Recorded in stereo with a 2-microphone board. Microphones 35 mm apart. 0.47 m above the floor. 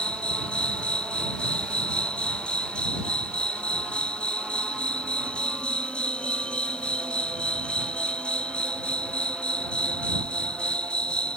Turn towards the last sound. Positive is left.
turn(degrees=30)  # may be behind; listen again after turning